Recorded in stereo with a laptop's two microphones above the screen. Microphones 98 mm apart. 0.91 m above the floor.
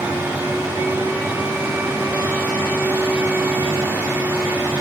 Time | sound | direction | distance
0.0 | a fan | 20° right (ahead or behind) | 0.9 m